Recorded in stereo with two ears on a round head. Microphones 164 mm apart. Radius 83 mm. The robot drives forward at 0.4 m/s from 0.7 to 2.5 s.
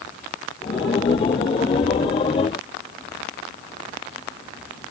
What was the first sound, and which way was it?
Only background noise.